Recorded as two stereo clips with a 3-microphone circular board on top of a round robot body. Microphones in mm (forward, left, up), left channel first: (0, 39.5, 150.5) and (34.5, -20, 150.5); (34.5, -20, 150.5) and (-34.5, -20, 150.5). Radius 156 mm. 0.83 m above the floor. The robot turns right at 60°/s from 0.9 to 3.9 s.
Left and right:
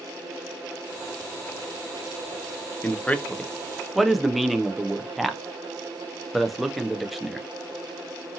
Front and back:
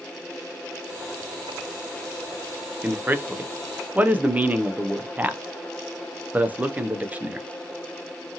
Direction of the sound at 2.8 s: 150° left.